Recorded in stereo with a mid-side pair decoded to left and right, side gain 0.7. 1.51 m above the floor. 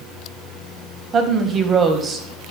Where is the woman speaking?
30° right, 1.6 m.